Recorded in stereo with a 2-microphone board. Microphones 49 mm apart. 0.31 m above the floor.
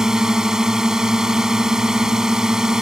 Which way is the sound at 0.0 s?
10° right (ahead or behind).